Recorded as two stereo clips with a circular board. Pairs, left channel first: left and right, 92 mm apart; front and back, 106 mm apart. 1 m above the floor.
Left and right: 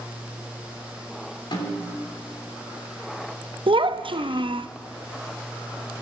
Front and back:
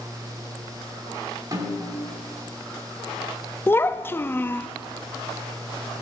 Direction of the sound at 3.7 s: 70° right.